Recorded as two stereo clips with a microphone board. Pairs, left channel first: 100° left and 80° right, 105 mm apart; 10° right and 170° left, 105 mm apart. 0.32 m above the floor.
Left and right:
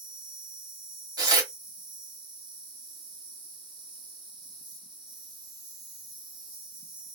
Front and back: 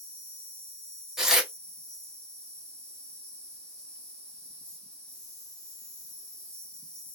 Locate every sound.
0.0 s an insect: 95° right, 3 m
1.2 s tearing paper: 105° right, 1.2 m